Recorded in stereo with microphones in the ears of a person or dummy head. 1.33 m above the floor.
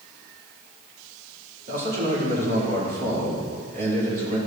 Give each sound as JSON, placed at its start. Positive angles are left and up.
{"t": 1.7, "sound": "a man speaking", "side_deg": -50, "distance_m": 3.0}